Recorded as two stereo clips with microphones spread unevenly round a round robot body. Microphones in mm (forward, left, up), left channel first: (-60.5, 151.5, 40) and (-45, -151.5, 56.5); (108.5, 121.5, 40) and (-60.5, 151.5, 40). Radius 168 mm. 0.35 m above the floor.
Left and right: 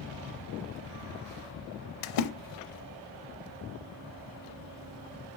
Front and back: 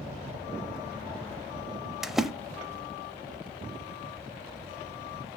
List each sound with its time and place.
2.0 s a splash: 80° left, 0.5 m